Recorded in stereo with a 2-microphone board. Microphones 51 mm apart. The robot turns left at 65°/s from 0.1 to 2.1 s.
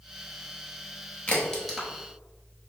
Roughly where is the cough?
I don't hear a cough.